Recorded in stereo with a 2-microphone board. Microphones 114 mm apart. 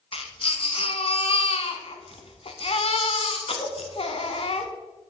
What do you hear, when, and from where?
0.1 s a baby crying: 55° left (ahead or behind), 0.9 m